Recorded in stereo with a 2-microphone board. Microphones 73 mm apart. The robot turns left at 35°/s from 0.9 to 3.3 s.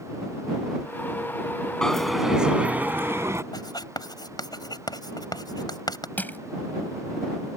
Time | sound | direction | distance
1.8 | a dropped coin | 10° left | ?
3.5 | writing | 70° left (ahead or behind) | ?
6.2 | crushing | 25° left (ahead or behind) | ?